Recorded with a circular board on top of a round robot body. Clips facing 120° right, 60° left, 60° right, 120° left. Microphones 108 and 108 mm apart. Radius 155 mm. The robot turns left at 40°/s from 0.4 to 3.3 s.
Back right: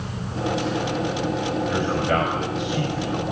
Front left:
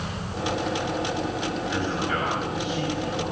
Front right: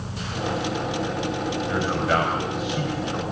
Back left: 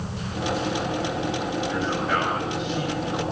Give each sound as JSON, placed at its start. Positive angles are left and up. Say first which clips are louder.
{"t": 1.7, "sound": "a man speaking", "louder": "back right 5 dB, front right 4 dB", "azimuth_deg": -110, "distance_m": 5.0}